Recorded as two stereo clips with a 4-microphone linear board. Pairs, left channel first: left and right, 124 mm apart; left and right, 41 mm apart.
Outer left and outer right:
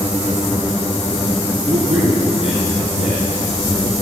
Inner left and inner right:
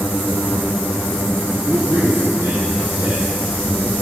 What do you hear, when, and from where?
1.7 s a man speaking: 60° right (ahead or behind), 3.5 m